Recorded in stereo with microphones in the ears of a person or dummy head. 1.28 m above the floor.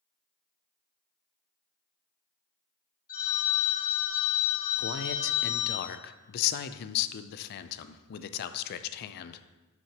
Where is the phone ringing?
45° left (ahead or behind), 1.6 m.